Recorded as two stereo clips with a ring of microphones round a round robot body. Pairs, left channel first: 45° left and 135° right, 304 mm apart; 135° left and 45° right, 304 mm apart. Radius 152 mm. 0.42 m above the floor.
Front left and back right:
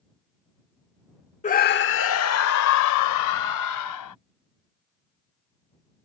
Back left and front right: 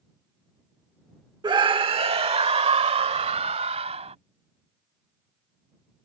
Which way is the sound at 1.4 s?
15° left.